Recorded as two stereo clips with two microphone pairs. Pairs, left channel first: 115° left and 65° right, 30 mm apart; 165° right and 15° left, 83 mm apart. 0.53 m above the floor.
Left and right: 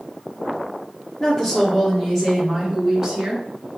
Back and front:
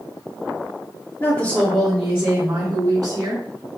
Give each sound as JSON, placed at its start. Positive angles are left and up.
{"t": 1.2, "sound": "a woman speaking", "azimuth_deg": 170, "distance_m": 0.8}